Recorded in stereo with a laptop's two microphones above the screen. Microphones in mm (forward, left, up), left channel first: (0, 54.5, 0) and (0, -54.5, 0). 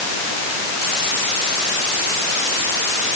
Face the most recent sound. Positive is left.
No sound to turn to.